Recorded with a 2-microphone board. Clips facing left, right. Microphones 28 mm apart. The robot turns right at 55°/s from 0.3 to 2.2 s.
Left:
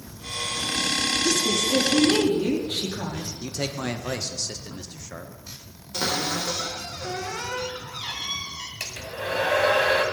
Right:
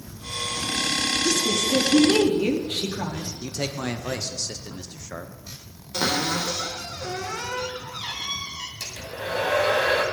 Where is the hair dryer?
60° left (ahead or behind), 1.4 m.